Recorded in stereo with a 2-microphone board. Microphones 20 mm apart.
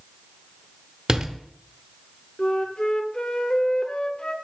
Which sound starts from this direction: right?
A door slam, at 1.1 s.